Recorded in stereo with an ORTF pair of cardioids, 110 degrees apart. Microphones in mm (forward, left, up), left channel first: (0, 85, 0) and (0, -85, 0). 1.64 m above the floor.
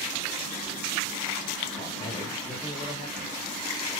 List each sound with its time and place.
1.8 s a man speaking: 30° left, 3.5 m